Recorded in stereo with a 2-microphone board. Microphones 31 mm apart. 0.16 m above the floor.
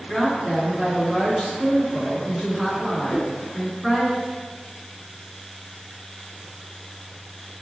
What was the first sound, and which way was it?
A woman speaking, 5° left (ahead or behind).